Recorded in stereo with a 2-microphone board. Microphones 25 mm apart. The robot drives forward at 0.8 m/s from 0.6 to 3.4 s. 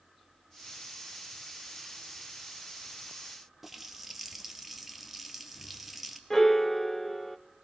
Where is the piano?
15° left (ahead or behind), 0.7 m.